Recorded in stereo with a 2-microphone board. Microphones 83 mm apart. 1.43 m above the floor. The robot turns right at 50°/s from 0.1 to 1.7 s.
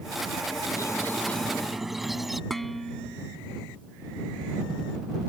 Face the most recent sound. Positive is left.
turn(degrees=5)  # may be behind; listen again after turning